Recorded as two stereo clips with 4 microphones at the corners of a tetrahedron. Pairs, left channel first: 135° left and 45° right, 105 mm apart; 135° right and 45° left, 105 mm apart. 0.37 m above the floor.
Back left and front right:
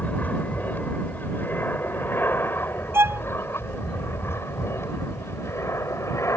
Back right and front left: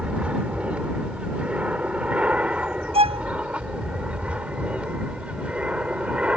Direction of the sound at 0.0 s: 100° left.